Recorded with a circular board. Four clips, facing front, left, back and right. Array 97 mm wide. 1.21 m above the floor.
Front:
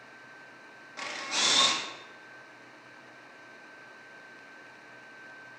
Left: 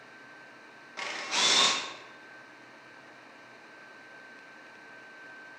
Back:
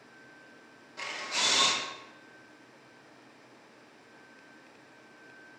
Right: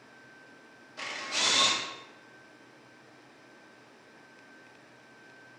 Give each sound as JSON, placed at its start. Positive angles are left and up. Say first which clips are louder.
{"t": 1.0, "sound": "a camera shutter", "louder": "left 3 dB, front 1 dB", "azimuth_deg": 60, "distance_m": 1.1}